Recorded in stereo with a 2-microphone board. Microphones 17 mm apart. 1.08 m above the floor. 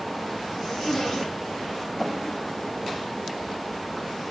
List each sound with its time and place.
0.6 s a zipper: 20° left (ahead or behind), 3 m